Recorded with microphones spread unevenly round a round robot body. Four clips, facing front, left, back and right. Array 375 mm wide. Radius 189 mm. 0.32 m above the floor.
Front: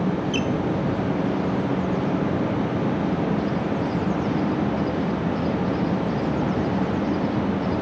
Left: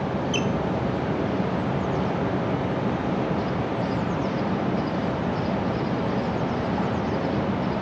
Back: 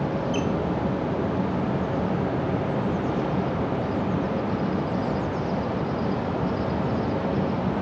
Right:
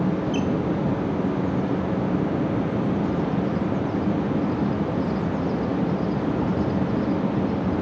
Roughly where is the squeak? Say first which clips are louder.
Right 1 dB, front 1 dB; ahead.